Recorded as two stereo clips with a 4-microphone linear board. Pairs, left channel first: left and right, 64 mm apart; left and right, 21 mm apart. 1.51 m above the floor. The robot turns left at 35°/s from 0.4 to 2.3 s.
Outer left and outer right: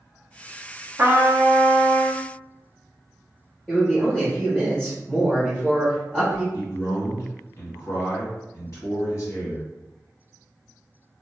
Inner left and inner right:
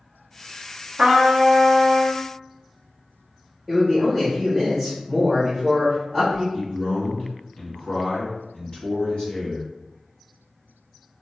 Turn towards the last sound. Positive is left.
turn(degrees=50)  # may be behind; listen again after turning